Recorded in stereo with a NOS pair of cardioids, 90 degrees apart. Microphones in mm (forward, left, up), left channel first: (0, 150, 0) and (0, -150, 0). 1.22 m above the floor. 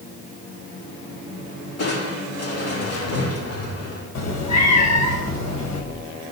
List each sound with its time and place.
1.8 s crushing: 55° left, 4 m
4.2 s a cat meowing: 60° left, 2.5 m